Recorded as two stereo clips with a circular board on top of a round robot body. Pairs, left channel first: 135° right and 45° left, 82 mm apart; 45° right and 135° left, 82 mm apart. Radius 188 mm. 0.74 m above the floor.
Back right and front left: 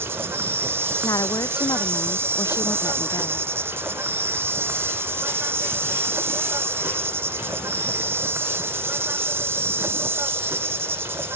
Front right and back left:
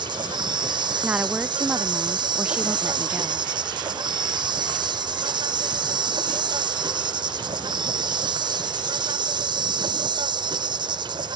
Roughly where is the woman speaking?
Behind right.